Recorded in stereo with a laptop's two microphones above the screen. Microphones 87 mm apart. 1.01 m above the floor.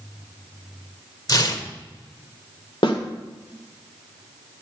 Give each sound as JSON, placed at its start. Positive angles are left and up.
{"t": 1.3, "sound": "tearing paper", "side_deg": 50, "distance_m": 1.2}
{"t": 2.8, "sound": "a snare drum", "side_deg": 85, "distance_m": 1.9}